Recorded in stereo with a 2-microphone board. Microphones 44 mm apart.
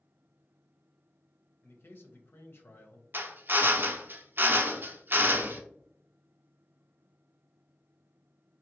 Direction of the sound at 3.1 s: 50° right (ahead or behind).